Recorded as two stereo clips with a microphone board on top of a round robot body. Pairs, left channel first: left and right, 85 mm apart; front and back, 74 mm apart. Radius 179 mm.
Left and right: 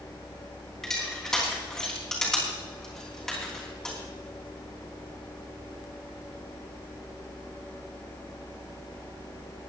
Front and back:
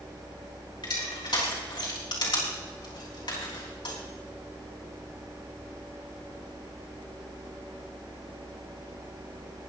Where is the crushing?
5° left, 4 m.